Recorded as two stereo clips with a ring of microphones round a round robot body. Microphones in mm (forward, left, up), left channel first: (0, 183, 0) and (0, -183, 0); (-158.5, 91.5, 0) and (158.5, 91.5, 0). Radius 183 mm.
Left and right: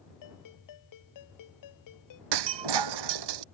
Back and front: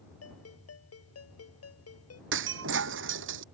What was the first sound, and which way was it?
A ringtone, 135° left.